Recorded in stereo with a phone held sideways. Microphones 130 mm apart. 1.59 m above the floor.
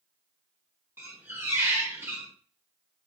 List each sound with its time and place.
1.0 s a squeak: 15° right (ahead or behind), 0.6 m